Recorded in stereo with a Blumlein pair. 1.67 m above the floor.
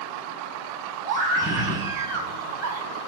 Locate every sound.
1.1 s a scream: 25° right, 1.3 m